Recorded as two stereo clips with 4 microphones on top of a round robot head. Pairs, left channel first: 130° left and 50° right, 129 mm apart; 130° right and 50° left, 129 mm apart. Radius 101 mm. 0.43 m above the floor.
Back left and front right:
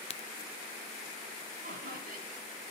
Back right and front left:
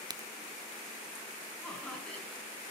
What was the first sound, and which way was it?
A crack, 105° left.